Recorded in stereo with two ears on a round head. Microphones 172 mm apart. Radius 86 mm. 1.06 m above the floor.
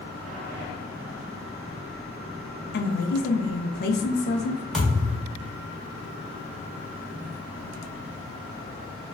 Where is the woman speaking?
60° left (ahead or behind), 0.5 m.